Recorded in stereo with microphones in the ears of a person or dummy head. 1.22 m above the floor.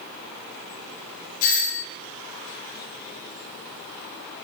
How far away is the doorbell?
About 0.6 m.